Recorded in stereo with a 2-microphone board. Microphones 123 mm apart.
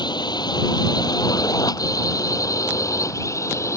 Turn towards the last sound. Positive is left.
turn(degrees=25)  # may be behind; listen again after turning